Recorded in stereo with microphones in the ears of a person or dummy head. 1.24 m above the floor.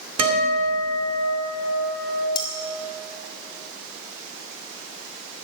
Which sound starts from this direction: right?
A guitar, at 0.2 s.